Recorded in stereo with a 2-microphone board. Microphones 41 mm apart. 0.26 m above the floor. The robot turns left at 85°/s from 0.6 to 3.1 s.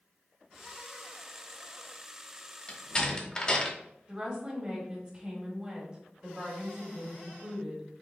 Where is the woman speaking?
25° right (ahead or behind), 1.5 m.